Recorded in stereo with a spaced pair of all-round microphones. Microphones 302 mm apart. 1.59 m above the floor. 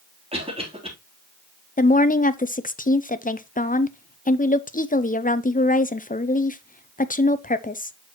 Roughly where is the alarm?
No alarm in this recording.